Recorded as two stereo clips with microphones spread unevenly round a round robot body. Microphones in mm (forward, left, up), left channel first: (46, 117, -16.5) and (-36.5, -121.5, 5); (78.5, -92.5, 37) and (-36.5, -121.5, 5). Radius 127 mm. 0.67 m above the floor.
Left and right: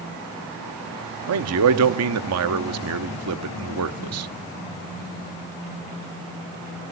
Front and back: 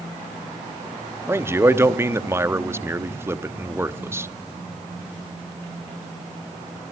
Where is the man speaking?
115° right, 1.0 m.